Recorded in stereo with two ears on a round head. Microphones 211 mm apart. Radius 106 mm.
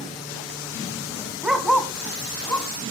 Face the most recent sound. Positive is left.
turn(degrees=10)  # may be behind; listen again after turning